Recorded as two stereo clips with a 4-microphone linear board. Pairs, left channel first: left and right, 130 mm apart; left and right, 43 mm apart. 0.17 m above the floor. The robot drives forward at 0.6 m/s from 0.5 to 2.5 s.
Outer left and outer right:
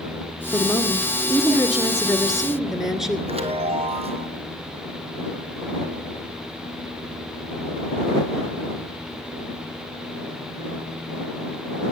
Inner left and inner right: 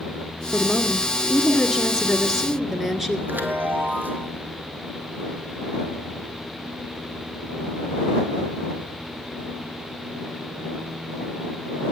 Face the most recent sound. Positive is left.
turn(degrees=-50)  # may be behind; listen again after turning